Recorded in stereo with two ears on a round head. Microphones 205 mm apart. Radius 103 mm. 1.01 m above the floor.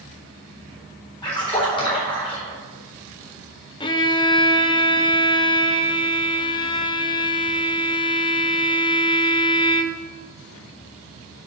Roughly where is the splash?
Left.